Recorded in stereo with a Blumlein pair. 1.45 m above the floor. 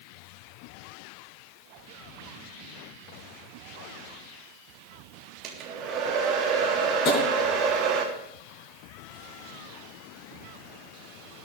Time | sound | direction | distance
5.4 | a hair dryer | 30° right | 3 m
7.0 | tapping | 35° left | 6 m